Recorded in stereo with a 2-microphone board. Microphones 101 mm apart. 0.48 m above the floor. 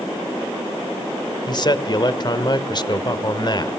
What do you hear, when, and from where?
1.5 s a man speaking: 45° left (ahead or behind), 1.2 m